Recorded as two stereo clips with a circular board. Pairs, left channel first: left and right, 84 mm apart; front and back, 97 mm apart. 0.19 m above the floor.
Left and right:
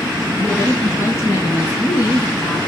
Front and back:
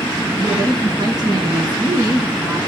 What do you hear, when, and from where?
0.4 s a woman speaking: 150° left, 2.5 m; by 2.6 s 115° left, 2.5 m